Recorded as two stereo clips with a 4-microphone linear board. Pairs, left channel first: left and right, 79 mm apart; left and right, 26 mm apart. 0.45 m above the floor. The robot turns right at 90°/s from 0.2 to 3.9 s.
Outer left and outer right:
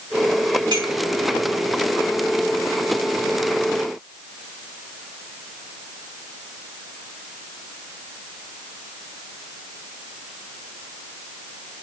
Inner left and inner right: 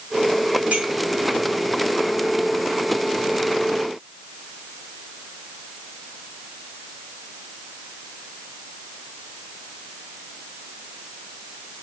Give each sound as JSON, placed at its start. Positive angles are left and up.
{"t": 0.7, "sound": "a clink", "side_deg": -70, "distance_m": 2.0}